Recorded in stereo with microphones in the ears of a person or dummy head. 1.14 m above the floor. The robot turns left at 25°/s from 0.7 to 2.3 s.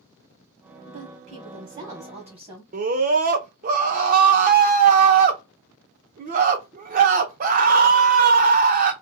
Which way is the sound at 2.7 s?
45° right (ahead or behind).